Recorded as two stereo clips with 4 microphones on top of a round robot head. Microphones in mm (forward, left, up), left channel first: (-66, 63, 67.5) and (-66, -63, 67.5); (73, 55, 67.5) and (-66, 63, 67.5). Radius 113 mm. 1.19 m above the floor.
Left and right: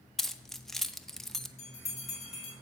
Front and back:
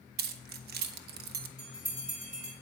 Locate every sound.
0.2 s keys jangling: 175° left, 0.5 m
1.6 s a bell: 130° left, 4 m